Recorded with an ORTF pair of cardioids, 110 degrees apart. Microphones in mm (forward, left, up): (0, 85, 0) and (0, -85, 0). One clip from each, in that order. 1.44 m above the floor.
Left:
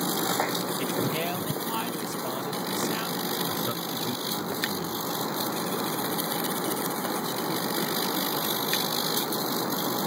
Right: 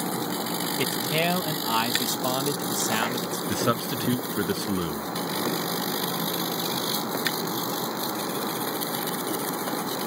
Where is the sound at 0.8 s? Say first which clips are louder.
Right 3 dB; 50° right.